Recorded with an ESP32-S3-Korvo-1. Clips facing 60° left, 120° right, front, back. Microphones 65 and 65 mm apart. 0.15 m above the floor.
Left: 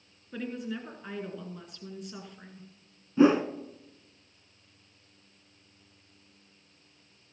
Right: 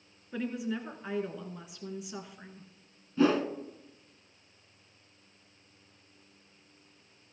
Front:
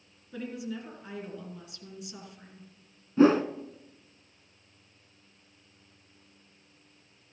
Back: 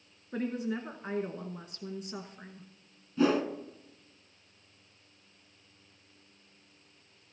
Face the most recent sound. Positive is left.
turn(degrees=10)